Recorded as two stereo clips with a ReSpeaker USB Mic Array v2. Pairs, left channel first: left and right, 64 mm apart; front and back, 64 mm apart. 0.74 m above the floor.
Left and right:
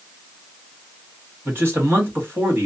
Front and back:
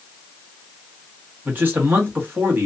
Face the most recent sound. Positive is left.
turn(degrees=-130)